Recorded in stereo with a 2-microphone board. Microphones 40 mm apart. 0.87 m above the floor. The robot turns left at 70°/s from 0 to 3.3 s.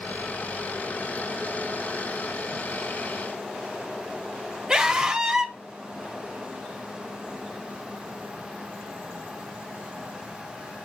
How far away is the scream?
About 1.6 m.